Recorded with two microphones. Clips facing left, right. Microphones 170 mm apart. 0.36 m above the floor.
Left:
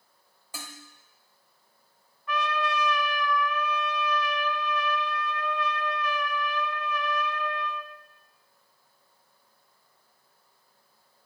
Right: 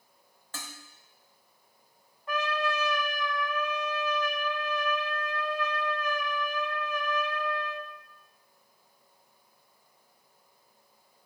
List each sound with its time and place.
0.5 s dishes clattering: 10° left (ahead or behind), 1.0 m
2.3 s a trumpet: 35° right (ahead or behind), 0.6 m